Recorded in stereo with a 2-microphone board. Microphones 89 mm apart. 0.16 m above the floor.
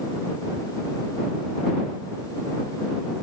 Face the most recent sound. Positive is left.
No sound to turn to.